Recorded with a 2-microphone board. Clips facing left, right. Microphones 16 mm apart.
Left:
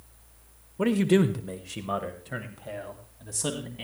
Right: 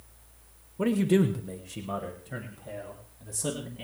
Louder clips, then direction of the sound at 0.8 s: Left 2 dB; 20° left (ahead or behind).